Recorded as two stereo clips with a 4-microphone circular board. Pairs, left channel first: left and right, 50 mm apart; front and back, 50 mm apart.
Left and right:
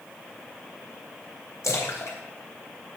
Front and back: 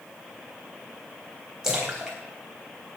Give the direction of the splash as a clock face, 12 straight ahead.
9 o'clock.